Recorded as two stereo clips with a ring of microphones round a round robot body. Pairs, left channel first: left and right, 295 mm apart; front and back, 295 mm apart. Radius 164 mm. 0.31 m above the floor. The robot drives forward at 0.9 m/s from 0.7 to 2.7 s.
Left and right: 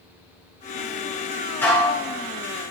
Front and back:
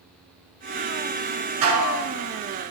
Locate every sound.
1.6 s dishes clattering: 175° left, 3.5 m